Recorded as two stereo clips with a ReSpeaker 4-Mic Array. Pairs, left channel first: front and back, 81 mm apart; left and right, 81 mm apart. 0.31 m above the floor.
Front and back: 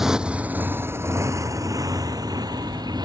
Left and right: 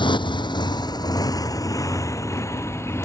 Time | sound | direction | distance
0.0 | a motorcycle | 95° left | ?